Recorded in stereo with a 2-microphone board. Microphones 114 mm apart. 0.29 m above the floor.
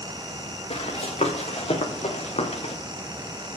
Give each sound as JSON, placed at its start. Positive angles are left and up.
{"t": 0.7, "sound": "running footsteps", "side_deg": 65, "distance_m": 3.5}